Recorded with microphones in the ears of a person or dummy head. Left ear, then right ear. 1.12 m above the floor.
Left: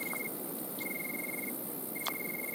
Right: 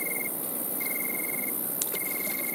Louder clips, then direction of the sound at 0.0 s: Right 5 dB; 15° right (ahead or behind).